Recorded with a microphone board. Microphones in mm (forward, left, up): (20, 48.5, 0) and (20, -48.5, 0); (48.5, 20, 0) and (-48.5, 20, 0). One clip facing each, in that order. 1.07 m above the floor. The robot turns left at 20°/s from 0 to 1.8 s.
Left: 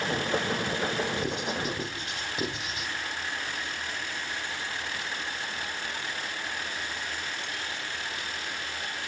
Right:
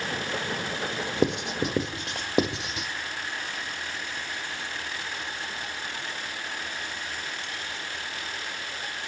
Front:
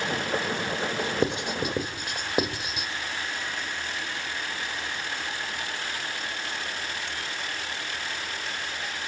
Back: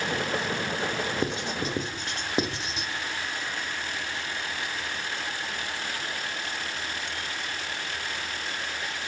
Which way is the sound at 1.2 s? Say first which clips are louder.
Right 5 dB, front 3 dB; 65° right.